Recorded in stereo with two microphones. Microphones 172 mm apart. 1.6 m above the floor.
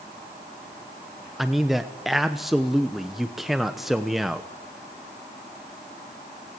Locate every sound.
1.4 s a man speaking: centre (ahead or behind), 0.9 m